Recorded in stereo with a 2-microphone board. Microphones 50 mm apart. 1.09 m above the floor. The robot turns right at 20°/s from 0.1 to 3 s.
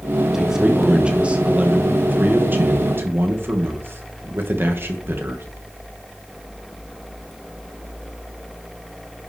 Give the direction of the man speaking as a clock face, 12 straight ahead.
6 o'clock.